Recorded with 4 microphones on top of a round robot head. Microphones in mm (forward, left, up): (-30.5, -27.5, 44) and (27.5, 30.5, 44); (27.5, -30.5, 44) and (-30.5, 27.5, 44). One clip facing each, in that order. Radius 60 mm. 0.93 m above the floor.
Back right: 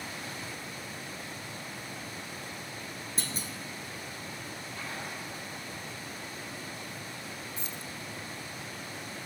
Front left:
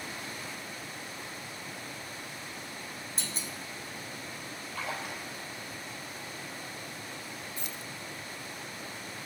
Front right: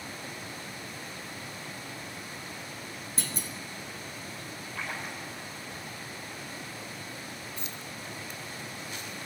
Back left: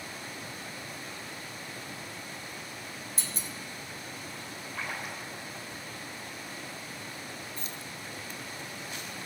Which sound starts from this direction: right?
A clunk, at 3.2 s.